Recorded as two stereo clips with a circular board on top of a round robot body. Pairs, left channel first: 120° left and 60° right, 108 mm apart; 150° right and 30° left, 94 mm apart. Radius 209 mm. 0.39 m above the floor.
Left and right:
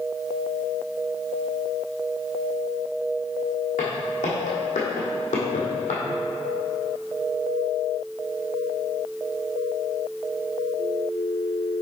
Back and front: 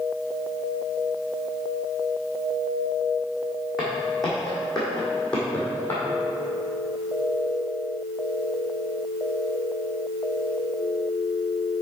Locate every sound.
3.8 s footsteps: 115° left, 2.5 m; by 6.0 s 140° left, 1.4 m